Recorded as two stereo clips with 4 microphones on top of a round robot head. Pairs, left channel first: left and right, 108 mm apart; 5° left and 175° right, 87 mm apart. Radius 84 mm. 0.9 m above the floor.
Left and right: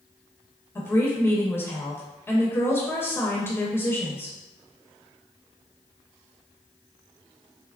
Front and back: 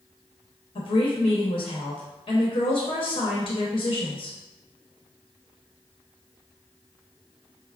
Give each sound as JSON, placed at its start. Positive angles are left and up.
{"t": 0.8, "sound": "a woman speaking", "azimuth_deg": 20, "distance_m": 1.0}